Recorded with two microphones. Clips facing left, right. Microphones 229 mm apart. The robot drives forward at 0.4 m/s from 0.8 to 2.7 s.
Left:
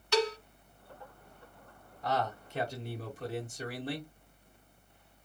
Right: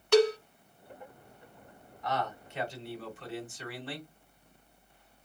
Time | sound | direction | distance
0.1 | a cowbell | 50° right (ahead or behind) | 0.7 m
2.0 | a man speaking | 35° left (ahead or behind) | 1.2 m